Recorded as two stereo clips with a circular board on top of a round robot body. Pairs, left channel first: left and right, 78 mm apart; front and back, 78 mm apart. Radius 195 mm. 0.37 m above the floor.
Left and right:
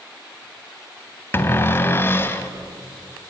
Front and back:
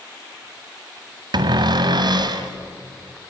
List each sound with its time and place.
1.3 s a cupboard door: 155° left, 1.1 m